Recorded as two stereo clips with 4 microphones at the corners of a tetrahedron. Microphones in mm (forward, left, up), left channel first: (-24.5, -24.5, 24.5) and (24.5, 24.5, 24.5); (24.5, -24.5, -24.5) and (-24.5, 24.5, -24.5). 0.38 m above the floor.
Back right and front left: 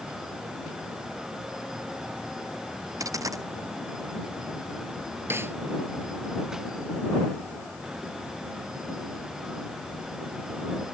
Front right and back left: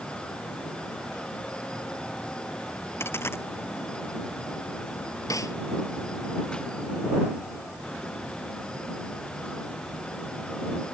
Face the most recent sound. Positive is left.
turn(degrees=-10)